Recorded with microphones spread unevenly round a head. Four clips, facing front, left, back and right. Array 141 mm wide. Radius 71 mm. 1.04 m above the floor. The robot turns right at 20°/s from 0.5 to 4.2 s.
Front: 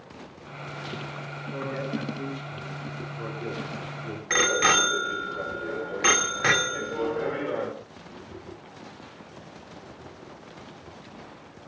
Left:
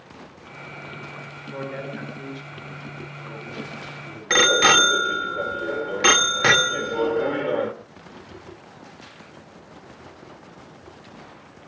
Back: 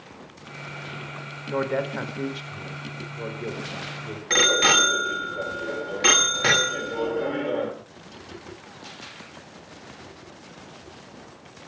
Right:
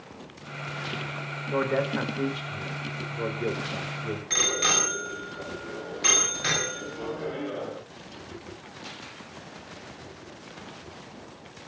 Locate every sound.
1.5 s a man speaking: 150° right, 4.5 m; by 4.2 s 100° right, 4.5 m
4.3 s a bicycle bell: 110° left, 2.5 m